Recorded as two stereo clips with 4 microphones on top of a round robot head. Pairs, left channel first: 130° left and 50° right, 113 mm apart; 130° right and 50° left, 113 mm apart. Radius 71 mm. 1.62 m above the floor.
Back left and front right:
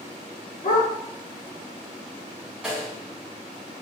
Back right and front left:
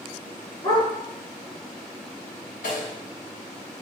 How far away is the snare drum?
About 7.5 m.